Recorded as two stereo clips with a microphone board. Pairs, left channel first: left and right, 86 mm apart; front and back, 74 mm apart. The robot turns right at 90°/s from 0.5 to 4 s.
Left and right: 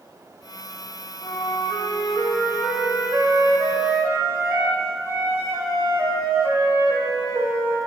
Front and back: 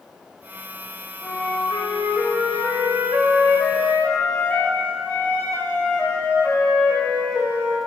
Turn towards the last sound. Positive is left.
turn(degrees=-55)